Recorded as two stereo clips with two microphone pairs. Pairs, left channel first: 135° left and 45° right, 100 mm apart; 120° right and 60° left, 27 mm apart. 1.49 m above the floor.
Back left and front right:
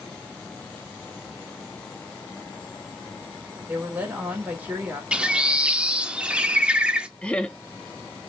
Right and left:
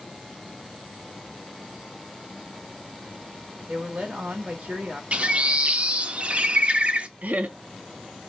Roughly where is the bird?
Ahead left.